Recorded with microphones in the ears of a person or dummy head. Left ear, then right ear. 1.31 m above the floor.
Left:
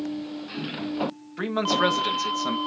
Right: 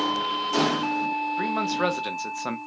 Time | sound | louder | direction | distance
1.4 | a man speaking | left 6 dB | centre (ahead or behind) | 1.5 m